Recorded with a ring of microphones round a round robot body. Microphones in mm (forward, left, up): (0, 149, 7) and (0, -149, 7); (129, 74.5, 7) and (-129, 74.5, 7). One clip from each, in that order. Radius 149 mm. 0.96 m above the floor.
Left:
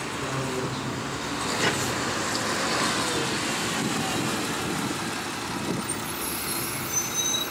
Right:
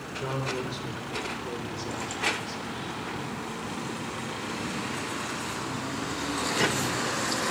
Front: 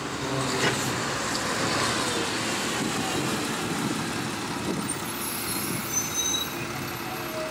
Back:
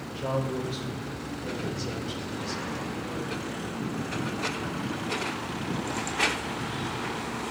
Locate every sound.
0.1 s a man speaking: 115° right, 3 m; by 3.0 s 165° right, 3 m